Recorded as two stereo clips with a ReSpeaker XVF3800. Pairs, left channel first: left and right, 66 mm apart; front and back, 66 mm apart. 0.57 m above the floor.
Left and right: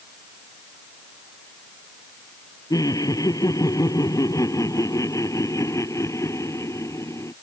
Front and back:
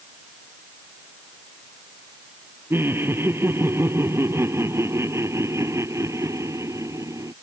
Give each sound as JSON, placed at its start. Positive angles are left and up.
{"t": 2.7, "sound": "laughter", "azimuth_deg": 120}